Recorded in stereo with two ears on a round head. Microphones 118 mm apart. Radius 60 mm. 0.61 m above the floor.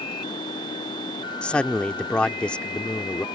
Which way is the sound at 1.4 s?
10° left (ahead or behind).